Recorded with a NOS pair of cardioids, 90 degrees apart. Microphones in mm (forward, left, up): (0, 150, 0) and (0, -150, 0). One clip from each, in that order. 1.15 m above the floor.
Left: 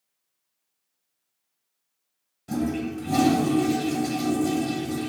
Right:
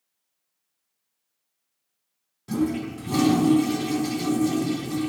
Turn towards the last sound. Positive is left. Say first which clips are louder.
# right 2 dB
turn(degrees=-10)